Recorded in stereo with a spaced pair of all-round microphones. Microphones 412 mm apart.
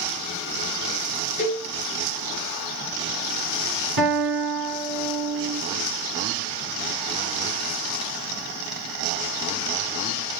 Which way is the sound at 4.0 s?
50° right (ahead or behind).